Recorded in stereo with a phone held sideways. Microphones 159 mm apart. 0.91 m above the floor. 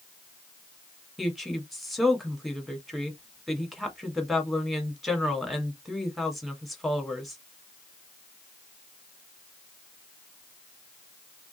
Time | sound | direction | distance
1.2 | a woman speaking | centre (ahead or behind) | 1.3 m